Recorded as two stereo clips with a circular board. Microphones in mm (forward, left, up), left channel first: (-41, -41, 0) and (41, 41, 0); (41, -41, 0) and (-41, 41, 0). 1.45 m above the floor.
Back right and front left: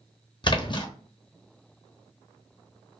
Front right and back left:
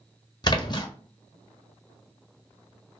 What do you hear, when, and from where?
0.4 s a splash: 90° right, 0.6 m